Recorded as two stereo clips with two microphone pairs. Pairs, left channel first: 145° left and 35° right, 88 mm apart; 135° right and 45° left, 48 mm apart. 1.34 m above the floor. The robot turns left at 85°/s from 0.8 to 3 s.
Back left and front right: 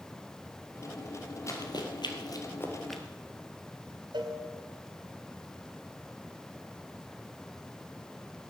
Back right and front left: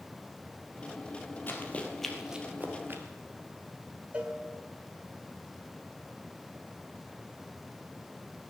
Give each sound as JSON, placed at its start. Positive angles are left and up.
{"t": 1.5, "sound": "running footsteps", "azimuth_deg": -165, "distance_m": 2.5}
{"t": 4.1, "sound": "a cowbell", "azimuth_deg": -15, "distance_m": 1.9}